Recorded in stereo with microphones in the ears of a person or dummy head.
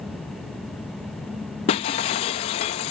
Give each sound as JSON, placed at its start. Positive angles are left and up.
{"t": 1.7, "sound": "breaking glass", "side_deg": 25}